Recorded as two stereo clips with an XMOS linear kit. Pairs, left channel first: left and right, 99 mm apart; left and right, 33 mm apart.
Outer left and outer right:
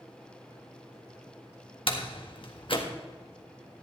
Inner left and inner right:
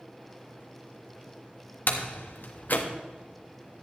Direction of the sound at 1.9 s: 60° left (ahead or behind).